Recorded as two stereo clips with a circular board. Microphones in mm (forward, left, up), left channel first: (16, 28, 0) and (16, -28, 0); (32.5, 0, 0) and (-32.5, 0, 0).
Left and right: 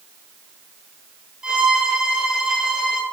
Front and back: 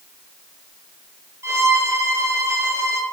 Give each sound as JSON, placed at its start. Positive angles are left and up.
{"t": 1.4, "sound": "a violin", "azimuth_deg": -160, "distance_m": 0.9}